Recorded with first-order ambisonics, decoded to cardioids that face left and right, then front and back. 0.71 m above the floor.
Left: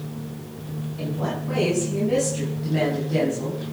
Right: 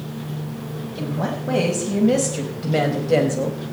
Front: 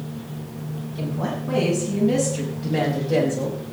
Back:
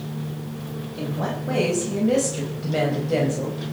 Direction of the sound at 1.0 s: 120° right.